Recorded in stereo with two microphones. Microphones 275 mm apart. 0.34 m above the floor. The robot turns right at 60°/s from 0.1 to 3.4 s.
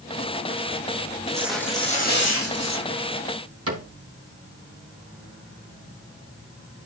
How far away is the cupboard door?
About 3.5 m.